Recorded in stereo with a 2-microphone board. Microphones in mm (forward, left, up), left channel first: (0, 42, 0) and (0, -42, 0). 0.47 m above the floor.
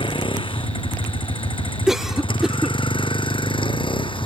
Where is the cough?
5° right (ahead or behind).